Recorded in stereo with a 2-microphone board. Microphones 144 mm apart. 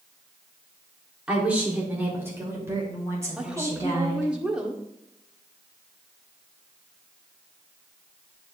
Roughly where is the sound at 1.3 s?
Centre.